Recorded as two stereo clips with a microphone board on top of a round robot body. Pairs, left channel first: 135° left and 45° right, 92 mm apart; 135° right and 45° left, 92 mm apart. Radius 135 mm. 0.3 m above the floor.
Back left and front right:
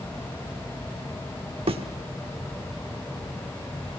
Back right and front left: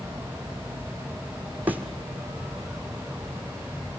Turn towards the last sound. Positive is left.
turn(degrees=-25)